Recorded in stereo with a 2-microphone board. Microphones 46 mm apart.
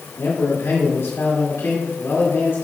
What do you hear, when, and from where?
0.2 s a man speaking: 85° left, 2.5 m; by 2.6 s 55° left (ahead or behind), 2.5 m